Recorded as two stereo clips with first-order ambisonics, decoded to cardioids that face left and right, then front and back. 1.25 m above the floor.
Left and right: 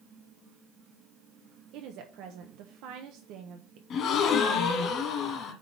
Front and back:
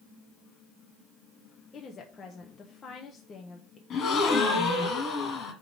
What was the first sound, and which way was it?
A woman speaking, 65° right.